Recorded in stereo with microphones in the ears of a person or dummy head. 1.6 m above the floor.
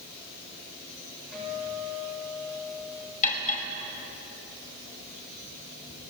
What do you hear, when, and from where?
1.3 s a guitar: 5° left (ahead or behind), 8 m
3.2 s cutlery clinking: 40° left (ahead or behind), 5 m